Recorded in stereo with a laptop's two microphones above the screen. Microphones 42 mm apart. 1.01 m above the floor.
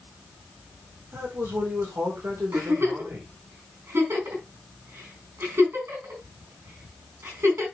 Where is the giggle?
75° right (ahead or behind), 4.5 m.